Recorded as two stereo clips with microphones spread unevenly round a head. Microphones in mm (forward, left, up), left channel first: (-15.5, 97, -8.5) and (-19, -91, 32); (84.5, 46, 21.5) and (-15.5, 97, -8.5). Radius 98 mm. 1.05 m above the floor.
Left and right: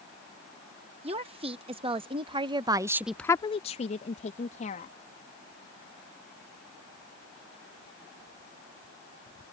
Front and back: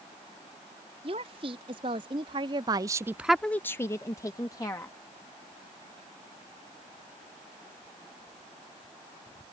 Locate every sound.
1.0 s a woman speaking: 155° right; by 5.0 s 35° left